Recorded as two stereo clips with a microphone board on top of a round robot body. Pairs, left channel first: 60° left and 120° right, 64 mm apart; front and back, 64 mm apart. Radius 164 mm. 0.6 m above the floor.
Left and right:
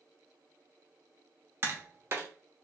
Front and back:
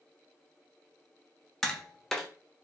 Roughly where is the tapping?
Right.